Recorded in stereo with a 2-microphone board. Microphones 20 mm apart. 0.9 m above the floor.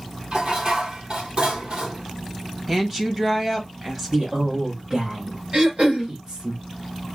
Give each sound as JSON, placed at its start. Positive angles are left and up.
{"t": 0.3, "sound": "dishes clattering", "side_deg": -55, "distance_m": 1.9}
{"t": 2.7, "sound": "a woman speaking", "side_deg": -15, "distance_m": 1.3}
{"t": 4.1, "sound": "a man speaking", "side_deg": -45, "distance_m": 1.6}
{"t": 5.5, "sound": "throat clearing", "side_deg": -60, "distance_m": 3.0}